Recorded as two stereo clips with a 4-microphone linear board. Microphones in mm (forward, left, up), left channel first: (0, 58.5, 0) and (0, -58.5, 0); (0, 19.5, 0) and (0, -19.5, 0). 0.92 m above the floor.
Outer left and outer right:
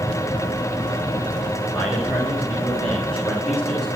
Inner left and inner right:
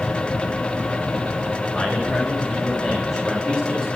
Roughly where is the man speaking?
Centre.